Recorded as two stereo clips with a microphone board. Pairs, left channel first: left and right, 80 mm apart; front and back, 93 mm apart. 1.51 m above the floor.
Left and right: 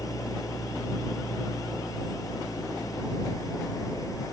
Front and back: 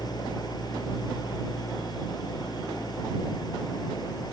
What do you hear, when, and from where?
0.0 s an engine running: 45° left